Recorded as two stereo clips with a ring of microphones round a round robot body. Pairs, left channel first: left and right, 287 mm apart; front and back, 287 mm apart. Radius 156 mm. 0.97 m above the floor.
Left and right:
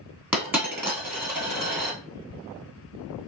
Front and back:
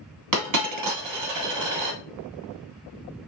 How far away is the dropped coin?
About 1.7 m.